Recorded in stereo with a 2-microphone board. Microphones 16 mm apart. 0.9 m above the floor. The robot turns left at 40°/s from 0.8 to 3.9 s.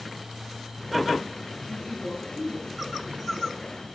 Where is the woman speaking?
135° left, 9 m; by 3.8 s 50° left, 9 m.